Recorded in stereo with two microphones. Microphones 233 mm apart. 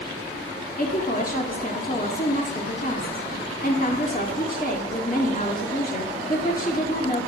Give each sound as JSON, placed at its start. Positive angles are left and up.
{"t": 0.8, "sound": "a woman speaking", "side_deg": 35, "distance_m": 1.5}